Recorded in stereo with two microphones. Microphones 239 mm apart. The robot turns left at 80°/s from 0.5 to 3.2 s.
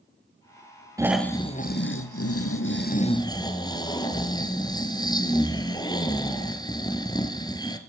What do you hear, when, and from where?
1.0 s snoring: 165° right, 1.1 m; by 7.8 s 15° left, 1.1 m